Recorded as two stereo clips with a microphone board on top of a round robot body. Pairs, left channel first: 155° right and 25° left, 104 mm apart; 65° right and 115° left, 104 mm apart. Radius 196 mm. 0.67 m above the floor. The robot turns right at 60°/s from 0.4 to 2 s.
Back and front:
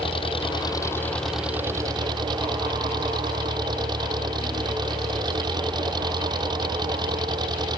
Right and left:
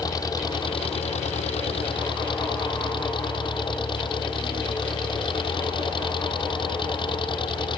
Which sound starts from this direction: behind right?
An engine running, at 0.0 s.